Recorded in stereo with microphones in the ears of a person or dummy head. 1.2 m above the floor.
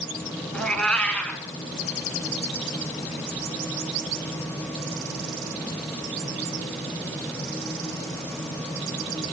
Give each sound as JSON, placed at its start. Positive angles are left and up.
{"t": 0.5, "sound": "a cat meowing", "side_deg": 5, "distance_m": 1.2}